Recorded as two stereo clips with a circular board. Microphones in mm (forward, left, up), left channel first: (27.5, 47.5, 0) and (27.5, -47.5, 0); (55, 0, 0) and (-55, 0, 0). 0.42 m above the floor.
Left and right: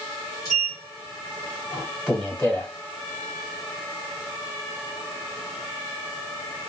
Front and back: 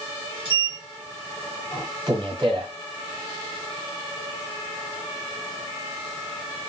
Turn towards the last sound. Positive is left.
turn(degrees=155)